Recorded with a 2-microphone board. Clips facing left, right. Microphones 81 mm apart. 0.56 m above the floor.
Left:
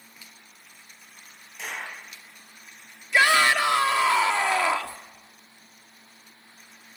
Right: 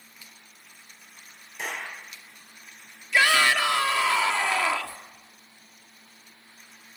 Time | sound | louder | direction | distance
1.6 | a clap | right 1 dB | 55° right (ahead or behind) | 8.5 m
3.1 | a shout | left 2 dB | 20° left (ahead or behind) | 1.4 m